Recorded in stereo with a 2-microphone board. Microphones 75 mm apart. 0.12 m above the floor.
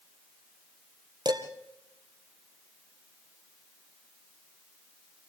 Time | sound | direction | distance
1.2 | dishes clattering | 70° right (ahead or behind) | 2 m